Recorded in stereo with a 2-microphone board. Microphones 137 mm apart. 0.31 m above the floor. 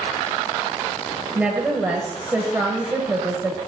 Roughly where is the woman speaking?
Centre.